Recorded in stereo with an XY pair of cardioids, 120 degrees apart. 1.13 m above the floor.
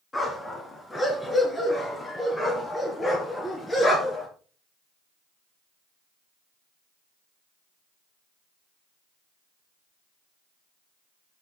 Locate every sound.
0.1 s a dog barking: 15° left, 4.5 m; by 4.3 s 20° left, 7.5 m